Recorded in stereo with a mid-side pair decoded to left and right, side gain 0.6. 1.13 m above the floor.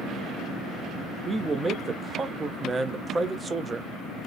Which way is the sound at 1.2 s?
30° right.